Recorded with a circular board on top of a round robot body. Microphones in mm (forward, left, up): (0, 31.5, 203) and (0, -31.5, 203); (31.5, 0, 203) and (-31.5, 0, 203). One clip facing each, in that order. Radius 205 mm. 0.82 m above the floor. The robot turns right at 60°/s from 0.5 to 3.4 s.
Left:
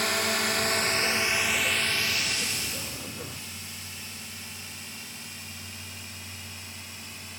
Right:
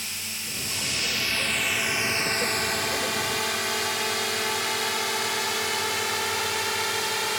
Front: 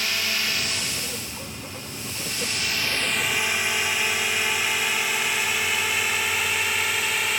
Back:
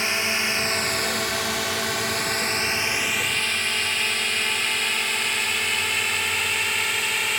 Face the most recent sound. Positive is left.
turn(degrees=-90)